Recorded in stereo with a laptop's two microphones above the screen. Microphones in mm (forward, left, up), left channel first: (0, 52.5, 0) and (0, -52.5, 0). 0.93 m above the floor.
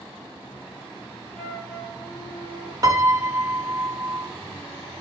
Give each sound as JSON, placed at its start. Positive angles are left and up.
{"t": 1.4, "sound": "a flute", "side_deg": 5, "distance_m": 0.8}
{"t": 2.8, "sound": "a piano", "side_deg": -40, "distance_m": 0.7}